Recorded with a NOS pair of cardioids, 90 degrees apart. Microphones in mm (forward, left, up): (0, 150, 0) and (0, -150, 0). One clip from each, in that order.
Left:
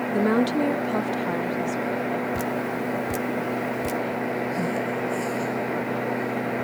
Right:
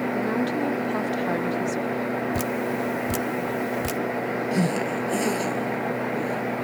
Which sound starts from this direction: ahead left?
A woman speaking, at 0.1 s.